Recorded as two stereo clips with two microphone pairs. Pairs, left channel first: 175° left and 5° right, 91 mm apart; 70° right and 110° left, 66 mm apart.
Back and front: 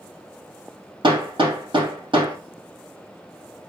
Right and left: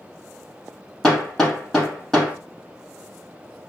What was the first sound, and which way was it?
Hammering, 10° left.